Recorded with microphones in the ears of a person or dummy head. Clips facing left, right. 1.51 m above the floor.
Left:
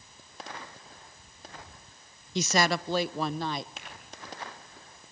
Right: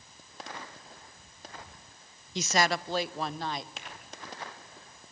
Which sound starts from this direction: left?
A woman speaking, at 2.4 s.